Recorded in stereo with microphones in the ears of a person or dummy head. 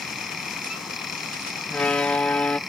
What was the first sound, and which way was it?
A fan, centre (ahead or behind).